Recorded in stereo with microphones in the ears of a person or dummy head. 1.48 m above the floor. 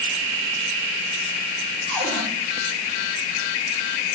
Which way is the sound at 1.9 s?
5° left (ahead or behind).